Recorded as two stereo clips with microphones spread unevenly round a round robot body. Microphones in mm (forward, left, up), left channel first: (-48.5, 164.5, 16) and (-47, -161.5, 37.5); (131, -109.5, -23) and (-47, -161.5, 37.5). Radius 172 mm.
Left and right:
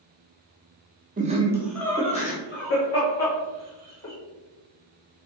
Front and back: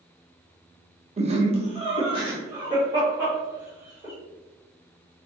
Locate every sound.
1.2 s laughter: 110° right, 1.0 m; by 4.1 s 105° left, 2.0 m